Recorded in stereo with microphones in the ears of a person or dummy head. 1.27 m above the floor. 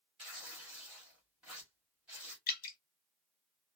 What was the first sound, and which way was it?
Tearing paper, 5° right (ahead or behind).